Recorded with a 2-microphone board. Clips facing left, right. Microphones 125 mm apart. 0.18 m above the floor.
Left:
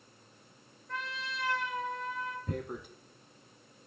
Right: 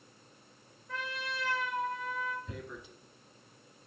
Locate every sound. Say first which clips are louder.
0.9 s a trumpet: right 1 dB; centre (ahead or behind), 2.0 m
2.5 s tearing paper: left 6 dB; 55° left (ahead or behind), 1.1 m